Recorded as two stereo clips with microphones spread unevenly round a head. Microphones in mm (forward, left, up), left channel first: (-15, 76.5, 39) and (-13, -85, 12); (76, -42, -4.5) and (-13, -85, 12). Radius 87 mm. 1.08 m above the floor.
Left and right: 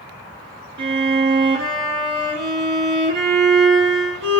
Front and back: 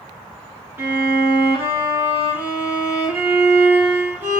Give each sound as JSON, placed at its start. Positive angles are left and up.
{"t": 0.8, "sound": "a violin", "azimuth_deg": -85, "distance_m": 4.5}